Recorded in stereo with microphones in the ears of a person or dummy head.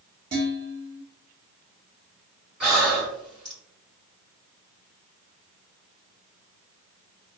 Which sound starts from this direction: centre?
Breathing, at 2.6 s.